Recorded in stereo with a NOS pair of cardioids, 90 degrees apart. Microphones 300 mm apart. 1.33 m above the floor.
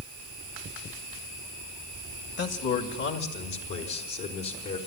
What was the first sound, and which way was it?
A man speaking, 55° left.